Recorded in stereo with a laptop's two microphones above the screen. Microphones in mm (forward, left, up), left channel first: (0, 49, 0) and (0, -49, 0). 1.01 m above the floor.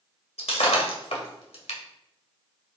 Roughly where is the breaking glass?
Left.